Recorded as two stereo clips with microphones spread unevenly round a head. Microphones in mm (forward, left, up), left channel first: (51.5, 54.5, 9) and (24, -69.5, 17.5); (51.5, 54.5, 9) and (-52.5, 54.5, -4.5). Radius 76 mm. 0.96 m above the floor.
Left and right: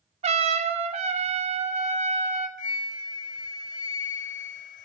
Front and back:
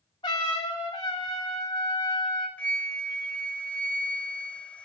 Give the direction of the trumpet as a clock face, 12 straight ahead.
2 o'clock.